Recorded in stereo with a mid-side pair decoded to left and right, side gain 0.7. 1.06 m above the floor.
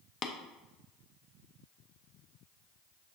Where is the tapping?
40° left, 0.6 m.